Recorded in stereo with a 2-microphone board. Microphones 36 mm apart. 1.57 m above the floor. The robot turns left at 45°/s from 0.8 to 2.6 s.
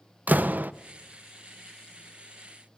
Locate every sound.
0.3 s a door slam: 55° right (ahead or behind), 0.8 m